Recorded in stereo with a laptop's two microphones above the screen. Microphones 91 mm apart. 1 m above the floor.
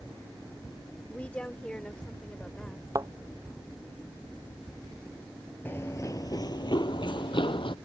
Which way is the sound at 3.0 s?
40° right (ahead or behind).